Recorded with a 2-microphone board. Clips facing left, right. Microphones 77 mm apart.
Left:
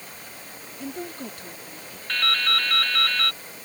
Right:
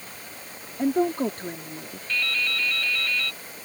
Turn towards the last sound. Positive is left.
turn(degrees=65)  # may be behind; listen again after turning